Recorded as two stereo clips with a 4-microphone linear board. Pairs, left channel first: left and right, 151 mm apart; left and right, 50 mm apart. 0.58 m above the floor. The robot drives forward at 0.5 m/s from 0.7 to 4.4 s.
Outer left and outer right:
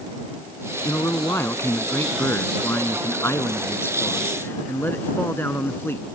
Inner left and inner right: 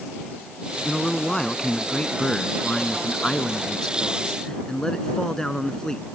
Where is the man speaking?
20° left (ahead or behind); by 6.0 s 15° left (ahead or behind).